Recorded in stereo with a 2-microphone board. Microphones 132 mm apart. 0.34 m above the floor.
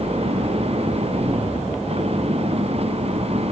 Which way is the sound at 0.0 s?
45° right (ahead or behind).